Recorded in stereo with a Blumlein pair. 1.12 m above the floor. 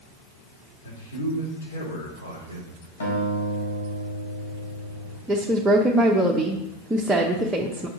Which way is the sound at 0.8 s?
65° left.